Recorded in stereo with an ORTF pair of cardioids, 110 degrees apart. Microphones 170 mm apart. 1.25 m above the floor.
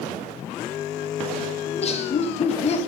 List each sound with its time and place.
1.7 s laughter: 40° left, 1.4 m